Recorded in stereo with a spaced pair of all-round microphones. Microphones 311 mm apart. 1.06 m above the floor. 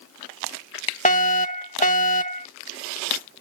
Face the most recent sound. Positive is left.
turn(degrees=25)  # may be behind; listen again after turning